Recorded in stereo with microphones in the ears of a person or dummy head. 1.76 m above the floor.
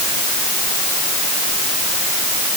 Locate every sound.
Only background noise.